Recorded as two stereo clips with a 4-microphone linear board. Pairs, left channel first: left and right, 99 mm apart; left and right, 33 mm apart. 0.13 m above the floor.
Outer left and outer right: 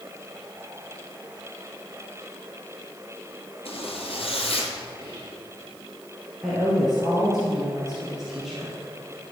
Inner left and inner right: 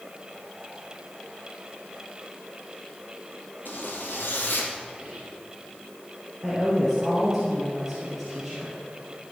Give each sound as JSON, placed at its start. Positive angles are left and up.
{"t": 3.6, "sound": "a zipper", "side_deg": 70, "distance_m": 2.5}
{"t": 5.0, "sound": "whispering", "side_deg": -35, "distance_m": 2.5}
{"t": 6.4, "sound": "a woman speaking", "side_deg": 0, "distance_m": 3.5}